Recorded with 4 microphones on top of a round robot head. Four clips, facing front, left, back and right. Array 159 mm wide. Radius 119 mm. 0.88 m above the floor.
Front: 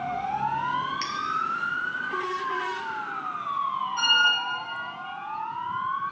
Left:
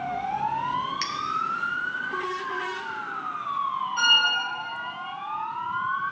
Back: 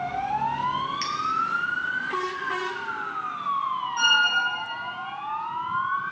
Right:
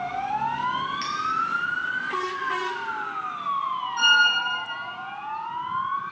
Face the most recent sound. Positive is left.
turn(degrees=110)